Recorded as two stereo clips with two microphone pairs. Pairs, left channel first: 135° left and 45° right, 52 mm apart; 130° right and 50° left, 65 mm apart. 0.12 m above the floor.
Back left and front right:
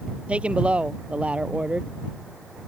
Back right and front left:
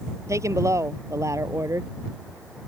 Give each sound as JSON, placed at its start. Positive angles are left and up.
{"t": 0.3, "sound": "a woman speaking", "azimuth_deg": 20}